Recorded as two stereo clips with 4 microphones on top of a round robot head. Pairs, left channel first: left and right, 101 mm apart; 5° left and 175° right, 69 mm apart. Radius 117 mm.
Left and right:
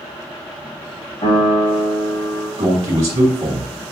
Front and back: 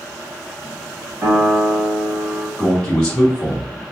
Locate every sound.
1.2 s a piano: 120° left, 2.5 m
2.6 s a man speaking: 75° right, 1.9 m